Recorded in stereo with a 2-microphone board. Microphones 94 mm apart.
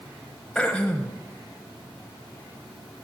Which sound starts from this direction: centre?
Throat clearing, at 0.6 s.